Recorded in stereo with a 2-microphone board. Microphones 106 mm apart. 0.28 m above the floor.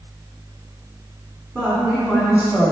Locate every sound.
1.6 s a woman speaking: 15° right (ahead or behind), 3.5 m